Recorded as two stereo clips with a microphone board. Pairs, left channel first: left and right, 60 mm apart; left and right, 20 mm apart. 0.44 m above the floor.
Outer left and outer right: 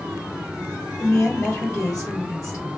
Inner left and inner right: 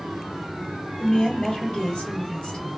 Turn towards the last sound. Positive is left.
turn(degrees=50)  # may be behind; listen again after turning